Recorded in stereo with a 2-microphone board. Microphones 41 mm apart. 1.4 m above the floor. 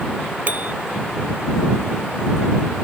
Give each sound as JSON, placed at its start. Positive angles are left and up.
{"t": 0.5, "sound": "a bicycle bell", "side_deg": -45}